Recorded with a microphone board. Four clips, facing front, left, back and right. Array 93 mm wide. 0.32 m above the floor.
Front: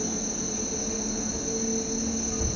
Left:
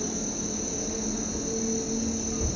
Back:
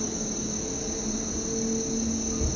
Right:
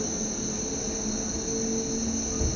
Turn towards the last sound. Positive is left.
turn(degrees=-30)